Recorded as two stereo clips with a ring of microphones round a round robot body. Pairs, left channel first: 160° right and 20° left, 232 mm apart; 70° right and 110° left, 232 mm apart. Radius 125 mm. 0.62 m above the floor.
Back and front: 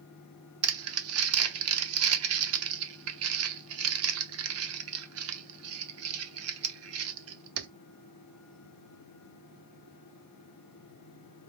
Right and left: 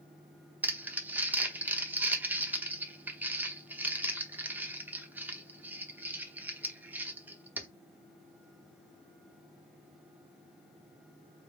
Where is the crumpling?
30° left, 0.9 m.